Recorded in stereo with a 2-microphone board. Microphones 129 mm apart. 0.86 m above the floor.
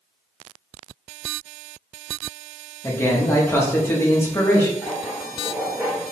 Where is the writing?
20° right (ahead or behind), 1.4 m.